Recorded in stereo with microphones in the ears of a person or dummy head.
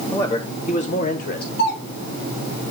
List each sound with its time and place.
0.1 s a man speaking: 10° left (ahead or behind), 0.7 m; by 1.5 s 50° left (ahead or behind), 1.2 m
1.6 s a doorbell: 60° left (ahead or behind), 3.5 m